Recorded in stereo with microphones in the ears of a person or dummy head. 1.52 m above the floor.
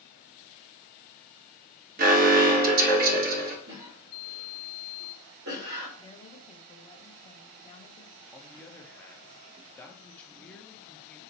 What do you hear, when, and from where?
2.0 s an alarm: 50° right (ahead or behind), 1.1 m
3.7 s a cough: 60° right (ahead or behind), 2.5 m
6.0 s a woman speaking: 35° left (ahead or behind), 0.8 m
8.3 s a man speaking: 5° left (ahead or behind), 0.9 m